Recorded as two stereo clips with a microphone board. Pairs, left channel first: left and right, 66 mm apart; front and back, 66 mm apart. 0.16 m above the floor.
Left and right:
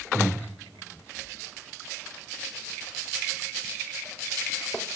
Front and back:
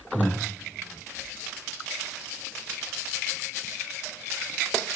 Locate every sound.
0.1 s breathing: 35° left, 4.5 m